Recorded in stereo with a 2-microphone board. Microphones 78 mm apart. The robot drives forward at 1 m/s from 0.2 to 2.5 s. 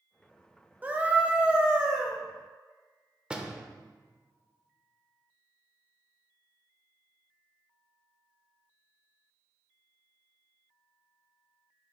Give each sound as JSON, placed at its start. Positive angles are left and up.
{"t": 0.8, "sound": "a scream", "side_deg": -20, "distance_m": 0.8}
{"t": 3.3, "sound": "a door slam", "side_deg": -10, "distance_m": 0.6}